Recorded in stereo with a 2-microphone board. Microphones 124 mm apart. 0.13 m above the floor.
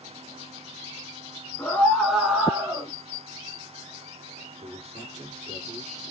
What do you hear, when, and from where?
1.6 s a scream: 20° left (ahead or behind), 1.3 m; by 2.9 s 25° right (ahead or behind), 1.6 m
4.6 s a man speaking: 60° right (ahead or behind), 2.5 m